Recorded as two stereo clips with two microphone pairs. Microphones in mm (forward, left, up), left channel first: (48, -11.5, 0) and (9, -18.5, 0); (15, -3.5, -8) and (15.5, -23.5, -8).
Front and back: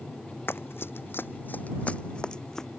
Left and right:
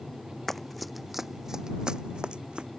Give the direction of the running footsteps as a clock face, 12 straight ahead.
12 o'clock.